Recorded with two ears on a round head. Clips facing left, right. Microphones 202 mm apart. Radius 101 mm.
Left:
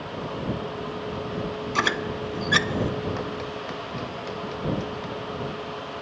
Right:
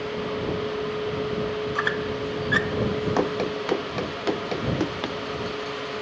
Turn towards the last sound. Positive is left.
turn(degrees=-80)